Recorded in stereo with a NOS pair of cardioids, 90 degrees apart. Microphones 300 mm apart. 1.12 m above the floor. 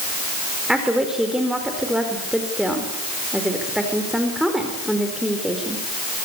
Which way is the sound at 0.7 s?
Straight ahead.